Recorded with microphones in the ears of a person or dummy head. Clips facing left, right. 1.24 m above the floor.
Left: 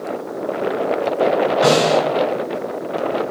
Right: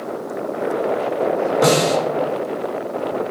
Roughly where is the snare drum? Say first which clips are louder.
Left 1 dB; right.